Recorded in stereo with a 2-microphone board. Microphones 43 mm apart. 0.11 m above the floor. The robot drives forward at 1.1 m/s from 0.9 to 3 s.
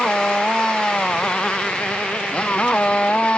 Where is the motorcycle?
20° left (ahead or behind); by 3.4 s 25° left (ahead or behind).